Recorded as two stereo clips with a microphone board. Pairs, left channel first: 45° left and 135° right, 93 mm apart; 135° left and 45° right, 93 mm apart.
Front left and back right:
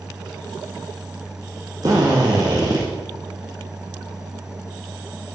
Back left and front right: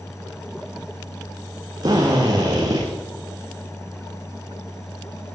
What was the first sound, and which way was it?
A drill, 90° right.